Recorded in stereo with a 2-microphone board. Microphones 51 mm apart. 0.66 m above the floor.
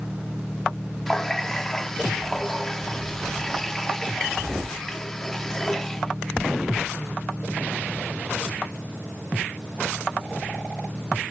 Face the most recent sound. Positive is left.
turn(degrees=10)  # may be behind; listen again after turning